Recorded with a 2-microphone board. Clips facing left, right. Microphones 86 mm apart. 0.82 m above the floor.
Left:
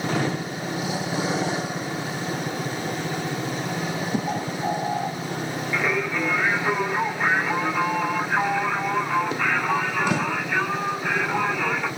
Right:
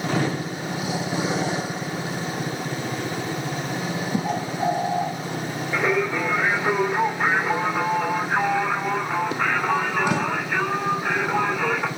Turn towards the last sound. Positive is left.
turn(degrees=-35)  # may be behind; listen again after turning